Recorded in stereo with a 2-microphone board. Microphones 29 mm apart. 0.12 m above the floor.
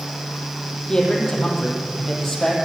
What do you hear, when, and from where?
0.9 s a man speaking: 20° left (ahead or behind), 4 m; by 2.5 s 5° left (ahead or behind), 4 m